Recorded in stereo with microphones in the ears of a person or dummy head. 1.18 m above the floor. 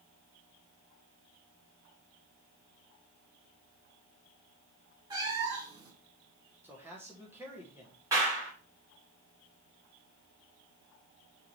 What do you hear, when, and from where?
5.1 s a cat meowing: 25° right (ahead or behind), 1.6 m
6.6 s a man speaking: 10° right (ahead or behind), 1.1 m
8.1 s a clap: 15° right (ahead or behind), 2.5 m